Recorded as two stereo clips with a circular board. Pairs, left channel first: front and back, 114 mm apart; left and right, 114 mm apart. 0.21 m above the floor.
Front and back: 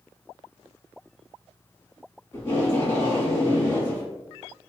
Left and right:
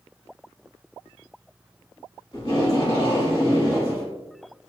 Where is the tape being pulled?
60° left, 1.1 m.